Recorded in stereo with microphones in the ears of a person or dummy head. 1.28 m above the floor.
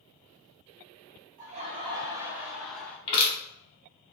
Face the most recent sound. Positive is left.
turn(degrees=35)  # may be behind; listen again after turning